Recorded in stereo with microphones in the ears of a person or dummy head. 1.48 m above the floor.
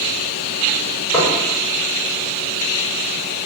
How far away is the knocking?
About 1.0 m.